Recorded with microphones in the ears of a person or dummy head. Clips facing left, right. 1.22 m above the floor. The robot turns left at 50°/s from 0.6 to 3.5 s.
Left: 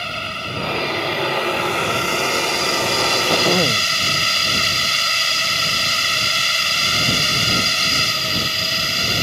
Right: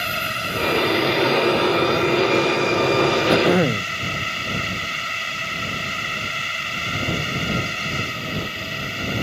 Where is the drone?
155° right; by 9.2 s 60° left.